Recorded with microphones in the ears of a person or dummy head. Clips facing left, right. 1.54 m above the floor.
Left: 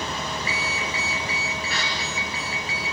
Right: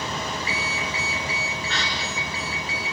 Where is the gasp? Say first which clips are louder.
Right 1 dB; 10° left (ahead or behind), 5 m.